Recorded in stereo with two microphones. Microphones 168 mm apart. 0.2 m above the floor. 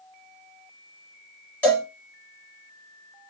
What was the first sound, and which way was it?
A cowbell, 10° left (ahead or behind).